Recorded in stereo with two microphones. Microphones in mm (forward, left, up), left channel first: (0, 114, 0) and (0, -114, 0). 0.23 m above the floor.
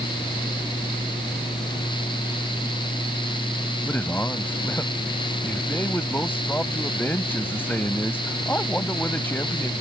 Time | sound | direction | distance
3.9 | a man speaking | 10° left (ahead or behind) | ?